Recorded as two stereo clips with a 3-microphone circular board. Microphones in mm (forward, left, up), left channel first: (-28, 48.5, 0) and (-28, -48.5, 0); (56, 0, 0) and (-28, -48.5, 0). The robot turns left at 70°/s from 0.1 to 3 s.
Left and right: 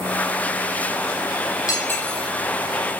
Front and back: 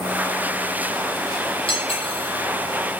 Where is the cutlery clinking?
40° left, 6 m; by 2.3 s straight ahead, 6 m.